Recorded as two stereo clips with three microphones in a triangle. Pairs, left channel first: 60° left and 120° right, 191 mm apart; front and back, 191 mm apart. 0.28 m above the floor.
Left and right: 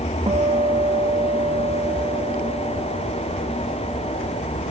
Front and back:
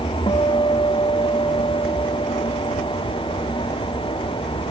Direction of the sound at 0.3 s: 65° right.